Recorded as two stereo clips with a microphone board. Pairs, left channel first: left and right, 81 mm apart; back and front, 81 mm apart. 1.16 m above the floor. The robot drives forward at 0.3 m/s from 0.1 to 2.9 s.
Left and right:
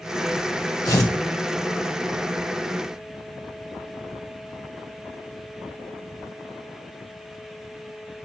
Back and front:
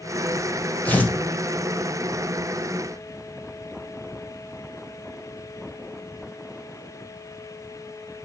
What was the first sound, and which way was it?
Tearing paper, 115° left.